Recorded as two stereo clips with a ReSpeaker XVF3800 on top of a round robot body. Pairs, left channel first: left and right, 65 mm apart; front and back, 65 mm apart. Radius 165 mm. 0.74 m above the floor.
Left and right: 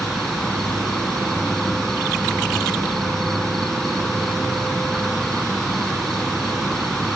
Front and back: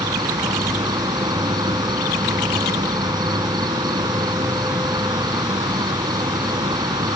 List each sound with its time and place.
0.0 s an insect: 175° left